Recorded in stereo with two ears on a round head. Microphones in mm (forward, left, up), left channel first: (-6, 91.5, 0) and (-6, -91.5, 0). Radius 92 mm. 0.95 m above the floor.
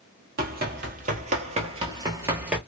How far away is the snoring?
I don't hear snoring.